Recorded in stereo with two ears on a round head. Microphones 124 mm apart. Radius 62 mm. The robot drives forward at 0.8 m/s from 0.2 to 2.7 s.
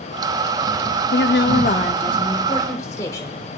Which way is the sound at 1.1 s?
80° left.